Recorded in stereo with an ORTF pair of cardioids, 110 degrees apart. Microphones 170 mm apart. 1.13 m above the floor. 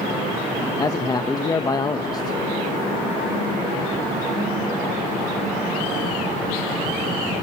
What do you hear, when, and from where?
0.8 s a man speaking: 25° left, 1.2 m